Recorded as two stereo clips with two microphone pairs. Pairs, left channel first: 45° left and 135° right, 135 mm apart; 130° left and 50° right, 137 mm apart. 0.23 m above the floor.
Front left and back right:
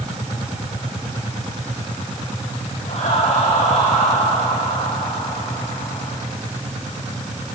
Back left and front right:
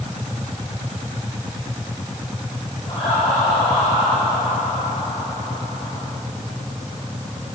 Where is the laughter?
80° left, 7 m; by 6.1 s 95° left, 8 m.